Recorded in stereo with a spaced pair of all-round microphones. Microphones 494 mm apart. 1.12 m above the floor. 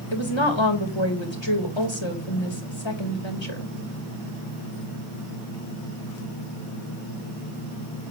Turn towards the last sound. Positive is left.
turn(degrees=60)  # may be behind; listen again after turning